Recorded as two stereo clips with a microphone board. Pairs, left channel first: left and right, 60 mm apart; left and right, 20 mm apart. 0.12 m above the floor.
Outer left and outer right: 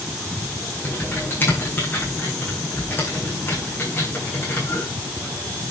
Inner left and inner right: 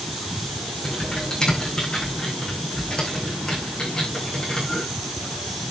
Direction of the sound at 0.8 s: 35° left (ahead or behind).